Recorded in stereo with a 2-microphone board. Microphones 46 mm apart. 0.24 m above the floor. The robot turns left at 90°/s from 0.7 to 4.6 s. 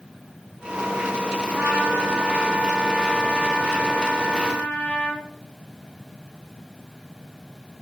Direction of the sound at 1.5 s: 50° right.